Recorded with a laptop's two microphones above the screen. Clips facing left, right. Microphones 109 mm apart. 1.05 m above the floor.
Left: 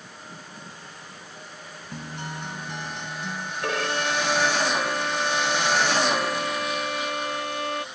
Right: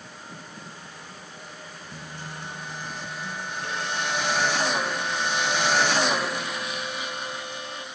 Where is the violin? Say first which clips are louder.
Left 5 dB; 85° left.